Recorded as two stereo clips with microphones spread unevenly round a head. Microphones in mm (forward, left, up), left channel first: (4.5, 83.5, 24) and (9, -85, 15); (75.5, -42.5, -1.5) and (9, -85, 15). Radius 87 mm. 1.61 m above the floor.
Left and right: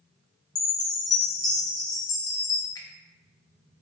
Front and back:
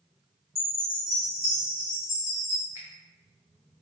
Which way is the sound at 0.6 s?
160° left.